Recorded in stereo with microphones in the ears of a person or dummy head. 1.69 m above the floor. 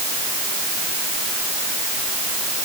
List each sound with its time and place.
Only background noise.